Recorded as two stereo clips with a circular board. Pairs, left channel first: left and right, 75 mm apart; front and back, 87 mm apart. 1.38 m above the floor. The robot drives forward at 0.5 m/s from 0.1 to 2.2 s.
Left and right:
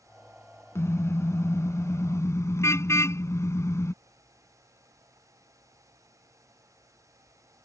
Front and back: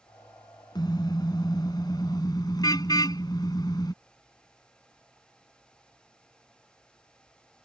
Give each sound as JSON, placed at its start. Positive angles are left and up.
{"t": 0.8, "sound": "a car horn", "azimuth_deg": 35}